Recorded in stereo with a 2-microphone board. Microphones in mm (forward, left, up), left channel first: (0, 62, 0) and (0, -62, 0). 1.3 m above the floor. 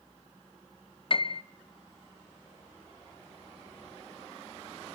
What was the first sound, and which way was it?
A piano, 45° left (ahead or behind).